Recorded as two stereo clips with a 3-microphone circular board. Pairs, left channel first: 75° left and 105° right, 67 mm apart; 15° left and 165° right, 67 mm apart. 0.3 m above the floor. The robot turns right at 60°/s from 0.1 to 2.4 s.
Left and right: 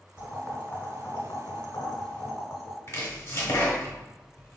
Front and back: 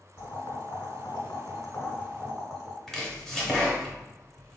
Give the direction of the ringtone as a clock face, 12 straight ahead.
I don't hear a ringtone.